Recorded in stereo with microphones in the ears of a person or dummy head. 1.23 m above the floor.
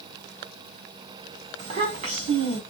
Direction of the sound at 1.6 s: 35° right (ahead or behind).